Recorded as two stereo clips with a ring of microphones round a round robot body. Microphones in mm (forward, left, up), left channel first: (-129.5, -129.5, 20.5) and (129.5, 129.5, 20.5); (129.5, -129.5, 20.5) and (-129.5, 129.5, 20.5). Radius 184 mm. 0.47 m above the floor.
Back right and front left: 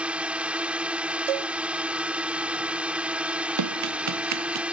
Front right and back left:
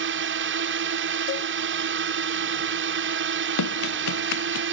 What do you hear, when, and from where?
0.0 s a drone: 130° left
1.3 s a cowbell: 20° left
3.6 s running footsteps: straight ahead; by 4.6 s 5° right